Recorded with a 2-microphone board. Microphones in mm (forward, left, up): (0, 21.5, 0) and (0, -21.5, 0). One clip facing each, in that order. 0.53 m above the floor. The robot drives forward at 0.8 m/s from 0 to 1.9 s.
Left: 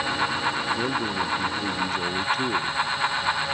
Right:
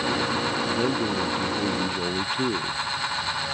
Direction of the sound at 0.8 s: 10° right (ahead or behind).